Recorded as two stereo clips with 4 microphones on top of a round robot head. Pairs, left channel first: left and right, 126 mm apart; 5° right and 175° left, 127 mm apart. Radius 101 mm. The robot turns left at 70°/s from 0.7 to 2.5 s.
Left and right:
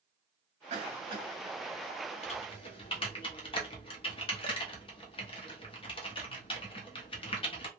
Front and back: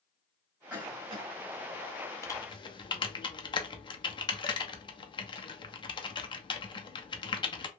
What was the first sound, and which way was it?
A cough, 105° right.